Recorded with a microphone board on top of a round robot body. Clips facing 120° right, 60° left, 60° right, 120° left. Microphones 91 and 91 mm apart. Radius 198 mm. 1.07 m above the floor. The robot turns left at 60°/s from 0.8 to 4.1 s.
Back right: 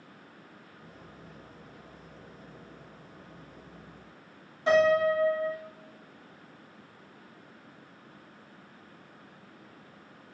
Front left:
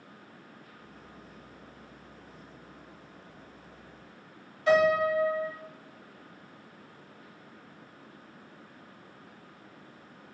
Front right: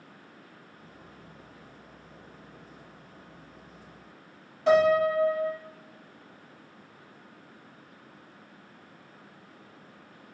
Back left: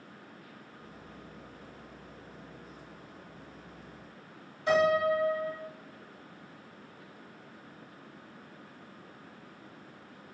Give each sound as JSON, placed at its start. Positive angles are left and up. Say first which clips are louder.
{"t": 4.7, "sound": "a piano", "louder": "back right 1 dB, front right 4 dB", "azimuth_deg": -60, "distance_m": 1.7}